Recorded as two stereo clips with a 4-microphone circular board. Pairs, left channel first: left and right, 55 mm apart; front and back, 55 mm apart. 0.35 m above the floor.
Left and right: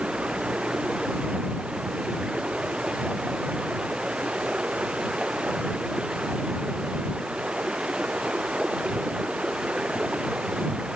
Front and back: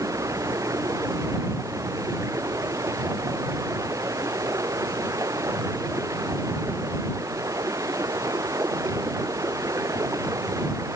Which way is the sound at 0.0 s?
165° right.